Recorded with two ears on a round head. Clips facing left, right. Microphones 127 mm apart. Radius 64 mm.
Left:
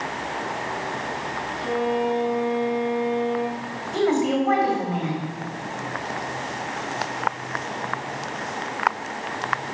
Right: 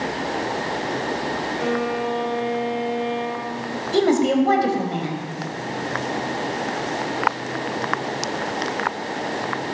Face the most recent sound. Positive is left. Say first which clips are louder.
# right 3 dB
turn(degrees=-40)  # may be behind; listen again after turning